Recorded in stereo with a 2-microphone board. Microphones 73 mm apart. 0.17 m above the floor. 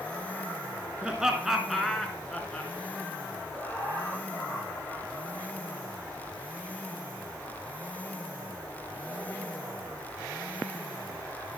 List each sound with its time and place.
1.0 s laughter: 10° right (ahead or behind), 2 m; by 2.7 s 20° left (ahead or behind), 2 m
3.5 s laughter: 25° left (ahead or behind), 7 m